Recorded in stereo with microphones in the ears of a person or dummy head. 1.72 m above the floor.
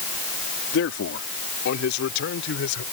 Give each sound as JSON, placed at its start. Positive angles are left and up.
{"t": 0.7, "sound": "a man speaking", "side_deg": 80}